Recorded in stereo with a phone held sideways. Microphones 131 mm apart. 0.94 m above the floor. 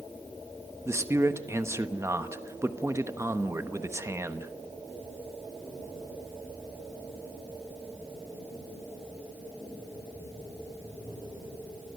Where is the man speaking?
20° right (ahead or behind), 1.1 m.